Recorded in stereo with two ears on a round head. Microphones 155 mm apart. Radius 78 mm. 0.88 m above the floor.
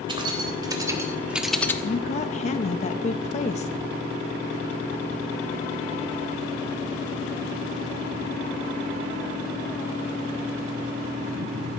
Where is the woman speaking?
40° left (ahead or behind), 0.9 m.